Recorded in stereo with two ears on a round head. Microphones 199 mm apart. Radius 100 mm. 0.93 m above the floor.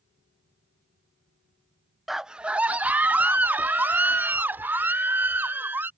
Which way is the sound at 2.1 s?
Centre (ahead or behind).